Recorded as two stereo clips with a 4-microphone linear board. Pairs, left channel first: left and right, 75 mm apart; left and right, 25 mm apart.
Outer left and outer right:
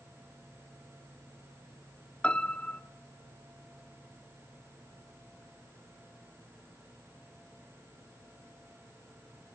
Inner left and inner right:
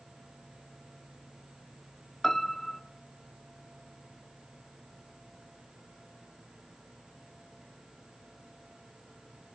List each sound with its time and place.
2.2 s a piano: 15° left (ahead or behind), 1.0 m